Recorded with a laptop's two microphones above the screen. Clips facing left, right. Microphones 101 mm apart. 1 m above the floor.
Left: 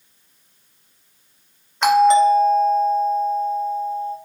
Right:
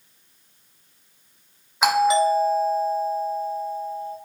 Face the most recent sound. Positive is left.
turn(degrees=-5)  # may be behind; listen again after turning